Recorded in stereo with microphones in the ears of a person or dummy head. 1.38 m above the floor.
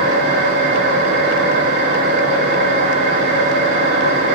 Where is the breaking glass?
No breaking glass in this recording.